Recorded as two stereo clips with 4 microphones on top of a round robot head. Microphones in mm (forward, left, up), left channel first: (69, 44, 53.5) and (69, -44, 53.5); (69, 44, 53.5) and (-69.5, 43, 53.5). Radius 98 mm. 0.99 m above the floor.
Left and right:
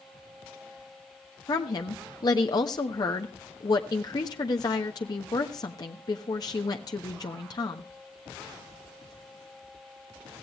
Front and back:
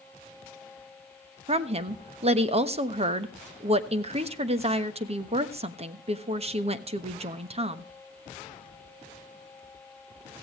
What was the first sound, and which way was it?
A woman speaking, 140° left.